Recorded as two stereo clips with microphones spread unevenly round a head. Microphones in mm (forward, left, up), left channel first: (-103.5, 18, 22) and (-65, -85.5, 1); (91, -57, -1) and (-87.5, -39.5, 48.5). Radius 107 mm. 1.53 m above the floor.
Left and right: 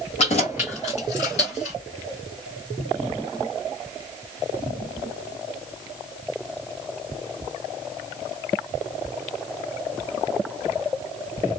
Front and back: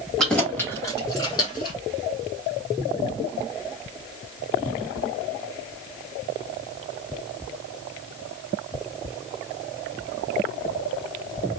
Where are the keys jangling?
90° left, 1.2 m; by 1.8 s 65° left, 2.5 m.